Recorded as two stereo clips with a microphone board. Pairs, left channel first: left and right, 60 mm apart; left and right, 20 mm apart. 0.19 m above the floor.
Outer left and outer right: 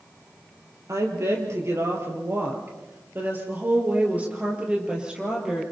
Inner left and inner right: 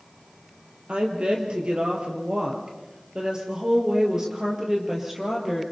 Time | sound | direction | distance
0.9 | a woman speaking | 60° right (ahead or behind) | 4.5 m